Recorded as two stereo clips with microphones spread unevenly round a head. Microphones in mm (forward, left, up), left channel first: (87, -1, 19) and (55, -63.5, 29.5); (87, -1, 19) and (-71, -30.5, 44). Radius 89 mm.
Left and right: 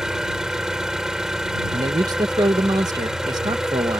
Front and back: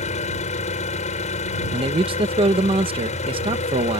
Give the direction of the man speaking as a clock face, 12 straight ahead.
4 o'clock.